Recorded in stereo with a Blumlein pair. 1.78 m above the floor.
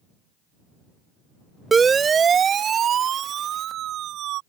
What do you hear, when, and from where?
1.7 s a siren: 15° right; by 4.4 s 35° right